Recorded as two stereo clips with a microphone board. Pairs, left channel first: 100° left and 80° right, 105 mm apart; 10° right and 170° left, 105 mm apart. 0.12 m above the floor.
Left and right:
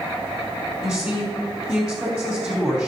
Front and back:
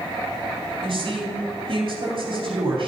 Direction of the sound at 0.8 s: 155° right.